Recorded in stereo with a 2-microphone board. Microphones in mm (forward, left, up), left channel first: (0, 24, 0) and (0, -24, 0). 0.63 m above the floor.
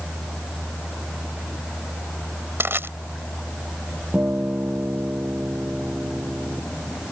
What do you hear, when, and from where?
2.6 s crushing: 50° right (ahead or behind)
4.1 s a guitar: 40° right (ahead or behind)